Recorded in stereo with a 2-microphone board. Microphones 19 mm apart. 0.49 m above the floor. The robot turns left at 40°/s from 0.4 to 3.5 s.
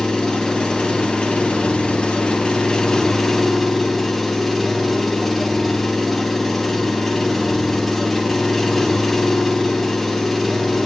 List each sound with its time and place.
0.0 s an engine running: 130° left, 3.5 m; by 10.9 s 5° left, 3.5 m